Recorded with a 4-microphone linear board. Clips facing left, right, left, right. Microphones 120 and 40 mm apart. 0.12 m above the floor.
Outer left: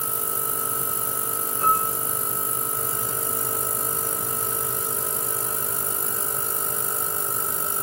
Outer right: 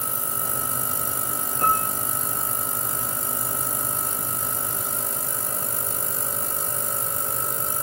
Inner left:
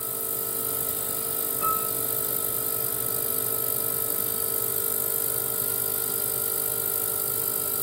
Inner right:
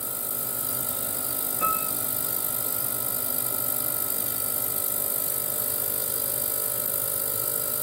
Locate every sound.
1.6 s a piano: 65° right (ahead or behind), 0.9 m